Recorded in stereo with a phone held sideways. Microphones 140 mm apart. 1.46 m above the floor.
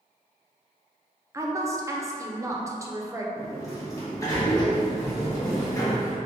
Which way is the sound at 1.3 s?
20° right (ahead or behind).